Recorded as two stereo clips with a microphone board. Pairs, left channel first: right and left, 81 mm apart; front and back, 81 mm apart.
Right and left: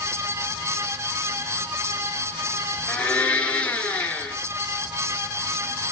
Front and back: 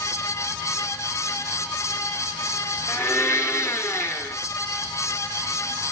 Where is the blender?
25° right, 2 m.